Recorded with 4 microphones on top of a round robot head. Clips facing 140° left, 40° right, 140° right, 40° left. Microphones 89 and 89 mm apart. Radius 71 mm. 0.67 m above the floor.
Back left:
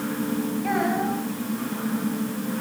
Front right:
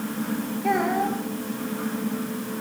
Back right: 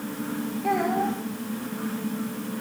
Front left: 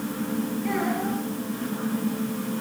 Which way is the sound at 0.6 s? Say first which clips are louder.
Front right 3 dB, back right 5 dB; 110° right.